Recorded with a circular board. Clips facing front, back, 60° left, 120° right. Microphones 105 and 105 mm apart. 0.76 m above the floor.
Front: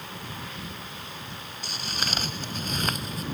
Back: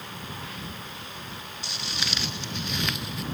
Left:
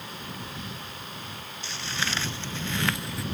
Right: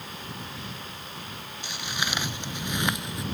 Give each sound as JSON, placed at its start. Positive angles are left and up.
{"t": 1.6, "sound": "footsteps", "azimuth_deg": -45}